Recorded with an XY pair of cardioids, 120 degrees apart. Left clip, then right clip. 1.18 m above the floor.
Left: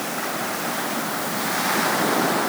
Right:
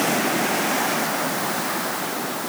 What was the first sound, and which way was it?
Only background noise.